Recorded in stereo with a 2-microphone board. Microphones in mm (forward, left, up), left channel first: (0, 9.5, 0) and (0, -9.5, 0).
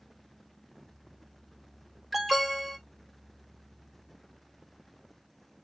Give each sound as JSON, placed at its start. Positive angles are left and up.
{"t": 2.1, "sound": "an alarm", "side_deg": 0, "distance_m": 1.2}